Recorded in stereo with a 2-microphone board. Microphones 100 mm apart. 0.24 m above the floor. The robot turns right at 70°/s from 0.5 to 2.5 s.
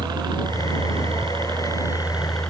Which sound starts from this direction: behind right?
A helicopter, at 0.0 s.